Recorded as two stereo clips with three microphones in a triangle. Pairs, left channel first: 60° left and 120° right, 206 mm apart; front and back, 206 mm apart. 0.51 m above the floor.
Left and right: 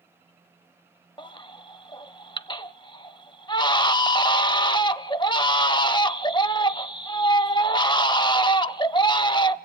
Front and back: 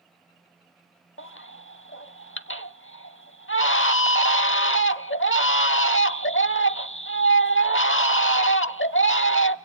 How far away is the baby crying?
About 0.7 m.